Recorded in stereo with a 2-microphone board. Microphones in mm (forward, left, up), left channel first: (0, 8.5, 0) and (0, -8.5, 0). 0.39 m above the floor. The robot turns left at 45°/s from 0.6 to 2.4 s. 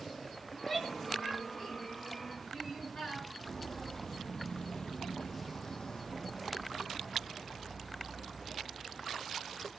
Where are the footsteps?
25° left (ahead or behind), 1.2 m; by 9.7 s 20° left (ahead or behind), 3.5 m.